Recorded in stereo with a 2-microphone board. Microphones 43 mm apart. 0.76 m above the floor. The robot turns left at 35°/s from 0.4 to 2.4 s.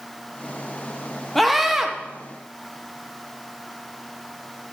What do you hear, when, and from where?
1.4 s a scream: 5° left (ahead or behind), 0.9 m; by 1.9 s 10° right (ahead or behind), 0.9 m